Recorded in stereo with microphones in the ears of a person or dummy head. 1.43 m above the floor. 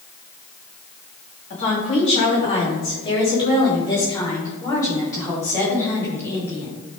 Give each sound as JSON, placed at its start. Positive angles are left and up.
{"t": 1.5, "sound": "a woman speaking", "side_deg": 40, "distance_m": 3.5}